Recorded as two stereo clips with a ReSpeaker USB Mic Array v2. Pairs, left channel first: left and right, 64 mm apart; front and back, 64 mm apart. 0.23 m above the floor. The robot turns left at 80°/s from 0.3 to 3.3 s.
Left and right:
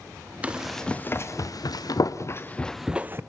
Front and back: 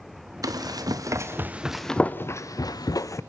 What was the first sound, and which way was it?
Running footsteps, 155° right.